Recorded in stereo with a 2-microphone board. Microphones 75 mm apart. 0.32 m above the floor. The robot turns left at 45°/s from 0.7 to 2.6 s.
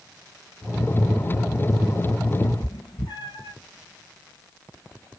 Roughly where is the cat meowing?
Left.